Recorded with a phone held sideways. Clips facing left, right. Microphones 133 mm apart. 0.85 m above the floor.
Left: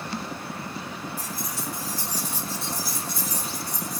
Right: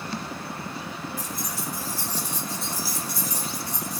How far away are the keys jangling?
About 3.5 m.